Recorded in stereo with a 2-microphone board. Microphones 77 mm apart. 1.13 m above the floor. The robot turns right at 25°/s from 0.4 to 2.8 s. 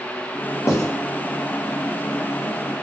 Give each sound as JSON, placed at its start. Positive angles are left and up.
{"t": 0.7, "sound": "writing", "side_deg": 45, "distance_m": 0.6}